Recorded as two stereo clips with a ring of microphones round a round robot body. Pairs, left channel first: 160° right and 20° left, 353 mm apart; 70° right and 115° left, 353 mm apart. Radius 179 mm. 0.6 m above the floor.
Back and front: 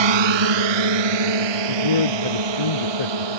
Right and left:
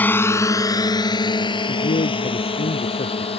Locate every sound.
0.0 s a drone: 20° left; by 3.4 s 5° left
1.7 s a man speaking: 140° right